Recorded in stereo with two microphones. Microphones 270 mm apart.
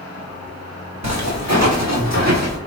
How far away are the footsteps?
About 3.5 m.